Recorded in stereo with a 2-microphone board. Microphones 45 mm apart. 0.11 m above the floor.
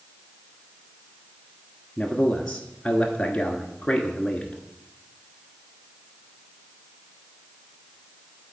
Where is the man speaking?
15° left (ahead or behind), 1.2 m.